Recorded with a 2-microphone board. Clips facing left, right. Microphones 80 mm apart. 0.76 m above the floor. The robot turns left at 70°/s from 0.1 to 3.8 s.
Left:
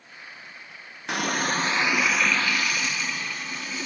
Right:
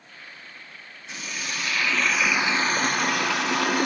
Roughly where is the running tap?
Left.